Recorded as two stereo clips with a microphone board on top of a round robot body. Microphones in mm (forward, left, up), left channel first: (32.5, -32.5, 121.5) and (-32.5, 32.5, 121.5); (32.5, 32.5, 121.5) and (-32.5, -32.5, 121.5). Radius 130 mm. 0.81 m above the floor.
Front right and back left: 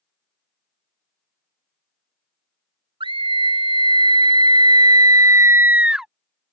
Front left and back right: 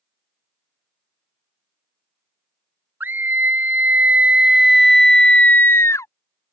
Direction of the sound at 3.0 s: 155° left.